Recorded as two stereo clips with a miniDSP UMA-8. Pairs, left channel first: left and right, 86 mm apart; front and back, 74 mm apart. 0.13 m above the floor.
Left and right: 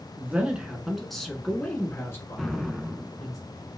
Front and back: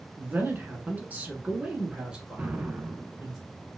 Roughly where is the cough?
I don't hear a cough.